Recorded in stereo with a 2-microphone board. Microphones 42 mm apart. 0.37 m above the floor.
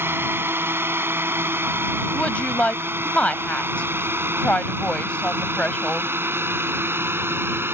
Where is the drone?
65° right (ahead or behind); by 7.8 s 70° right (ahead or behind).